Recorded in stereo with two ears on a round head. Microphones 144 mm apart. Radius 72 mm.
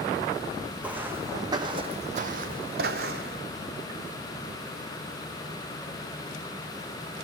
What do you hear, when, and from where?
0.8 s footsteps: 10° right (ahead or behind), 1.4 m; by 3.4 s 70° right (ahead or behind), 1.3 m